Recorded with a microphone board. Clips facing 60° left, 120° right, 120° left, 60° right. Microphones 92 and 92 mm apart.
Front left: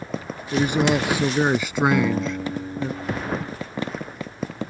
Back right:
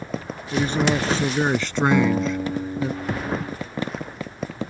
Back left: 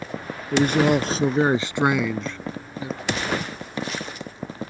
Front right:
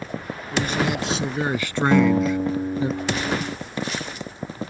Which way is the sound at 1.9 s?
45° right.